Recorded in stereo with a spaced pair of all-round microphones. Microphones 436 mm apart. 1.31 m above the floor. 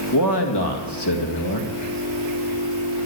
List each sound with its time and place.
0.1 s a man speaking: 65° left (ahead or behind), 2 m